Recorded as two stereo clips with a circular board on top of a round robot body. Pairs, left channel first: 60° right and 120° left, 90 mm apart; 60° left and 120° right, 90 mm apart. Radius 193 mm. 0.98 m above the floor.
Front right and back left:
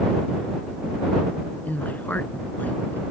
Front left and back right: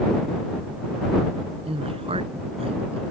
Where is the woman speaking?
130° right.